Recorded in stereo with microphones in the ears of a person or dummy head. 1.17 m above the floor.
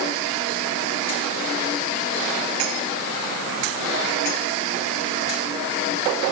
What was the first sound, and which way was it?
Only background noise.